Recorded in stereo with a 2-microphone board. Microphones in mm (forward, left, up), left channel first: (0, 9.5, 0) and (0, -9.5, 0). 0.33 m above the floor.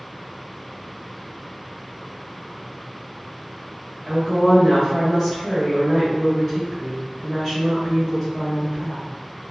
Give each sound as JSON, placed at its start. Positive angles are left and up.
{"t": 4.0, "sound": "a woman speaking", "side_deg": -5, "distance_m": 1.7}